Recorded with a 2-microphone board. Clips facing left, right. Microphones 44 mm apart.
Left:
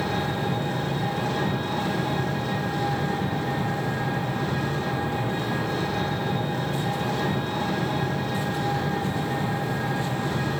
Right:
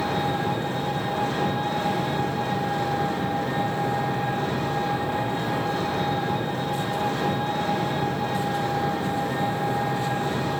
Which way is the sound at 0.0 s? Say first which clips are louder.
Right 2 dB; 40° right (ahead or behind).